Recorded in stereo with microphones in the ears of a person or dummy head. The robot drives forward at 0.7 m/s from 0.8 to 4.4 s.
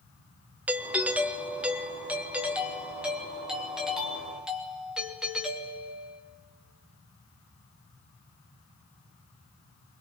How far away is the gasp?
No gasp in this recording.